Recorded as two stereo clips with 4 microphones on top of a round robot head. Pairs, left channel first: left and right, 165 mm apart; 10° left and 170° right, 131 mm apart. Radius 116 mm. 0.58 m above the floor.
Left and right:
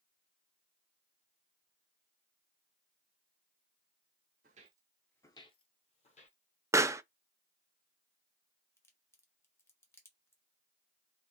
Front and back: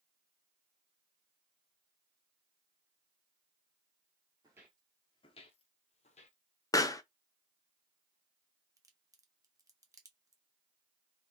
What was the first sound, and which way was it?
Footsteps, 105° right.